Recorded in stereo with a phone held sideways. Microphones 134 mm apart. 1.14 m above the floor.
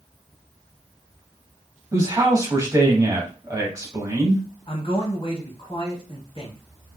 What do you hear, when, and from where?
1.9 s a man speaking: 25° right (ahead or behind), 1.8 m
4.7 s a man speaking: 40° left (ahead or behind), 2 m